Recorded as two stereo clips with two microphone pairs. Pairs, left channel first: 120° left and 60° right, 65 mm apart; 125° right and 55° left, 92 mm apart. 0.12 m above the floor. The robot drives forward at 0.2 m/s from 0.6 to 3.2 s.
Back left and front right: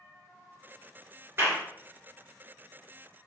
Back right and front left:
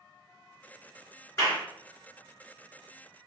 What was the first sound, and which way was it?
A clap, 85° right.